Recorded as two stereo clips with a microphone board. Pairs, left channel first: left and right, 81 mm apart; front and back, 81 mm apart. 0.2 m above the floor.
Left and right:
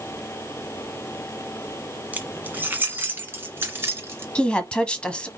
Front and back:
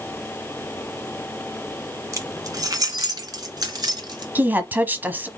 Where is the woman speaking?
150° left, 1.0 m.